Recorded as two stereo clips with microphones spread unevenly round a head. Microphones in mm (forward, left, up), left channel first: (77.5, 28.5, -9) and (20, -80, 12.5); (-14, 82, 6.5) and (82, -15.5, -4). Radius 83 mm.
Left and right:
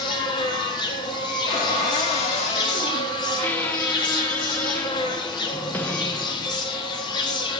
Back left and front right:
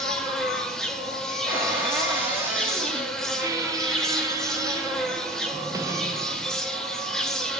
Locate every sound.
0.0 s an insect: 65° left, 1.3 m
1.5 s a cupboard door: 30° left, 2.5 m
3.4 s a squeak: 15° right, 0.7 m